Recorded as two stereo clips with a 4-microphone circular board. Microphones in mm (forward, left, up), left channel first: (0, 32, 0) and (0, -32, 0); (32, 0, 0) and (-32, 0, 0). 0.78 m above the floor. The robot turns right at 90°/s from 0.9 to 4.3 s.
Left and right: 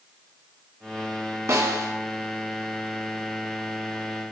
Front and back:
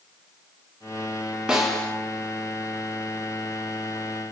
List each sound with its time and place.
1.5 s a snare drum: 110° right, 1.4 m; by 1.9 s 70° right, 1.4 m